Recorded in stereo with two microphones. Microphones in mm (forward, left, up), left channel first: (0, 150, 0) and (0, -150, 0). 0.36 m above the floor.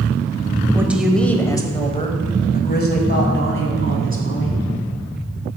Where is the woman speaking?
10° right (ahead or behind), 1.2 m; by 4.7 s 50° left (ahead or behind), 2.5 m.